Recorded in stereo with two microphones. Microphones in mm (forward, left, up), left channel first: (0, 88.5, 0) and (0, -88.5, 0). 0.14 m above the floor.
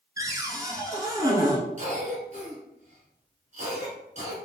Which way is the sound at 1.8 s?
45° right (ahead or behind).